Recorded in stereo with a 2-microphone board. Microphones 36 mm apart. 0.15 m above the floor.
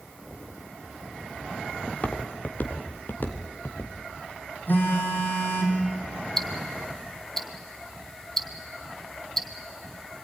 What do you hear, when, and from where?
1.9 s footsteps: 35° left (ahead or behind), 2 m; by 3.9 s 65° left (ahead or behind), 3 m
4.7 s a phone buzzing: 55° left (ahead or behind), 5.5 m
6.4 s ticking: 10° left (ahead or behind), 1.3 m